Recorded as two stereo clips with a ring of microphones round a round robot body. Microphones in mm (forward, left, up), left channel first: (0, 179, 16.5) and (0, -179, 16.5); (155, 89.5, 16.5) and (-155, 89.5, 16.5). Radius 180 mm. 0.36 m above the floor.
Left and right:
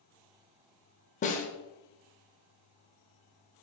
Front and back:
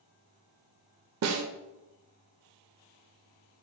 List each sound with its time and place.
1.2 s a snare drum: 155° left, 0.5 m